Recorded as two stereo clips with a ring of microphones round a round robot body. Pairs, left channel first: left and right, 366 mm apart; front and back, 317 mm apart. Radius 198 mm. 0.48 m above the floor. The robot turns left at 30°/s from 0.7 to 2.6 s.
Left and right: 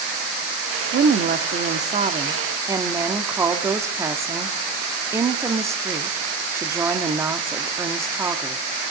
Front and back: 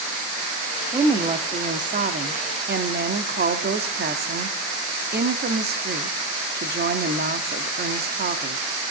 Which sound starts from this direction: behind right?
A woman speaking, at 0.9 s.